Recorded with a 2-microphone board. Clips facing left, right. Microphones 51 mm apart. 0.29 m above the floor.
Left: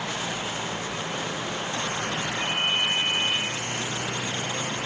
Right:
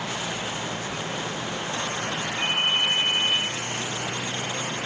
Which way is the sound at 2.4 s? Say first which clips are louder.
Right 2 dB; 60° right (ahead or behind).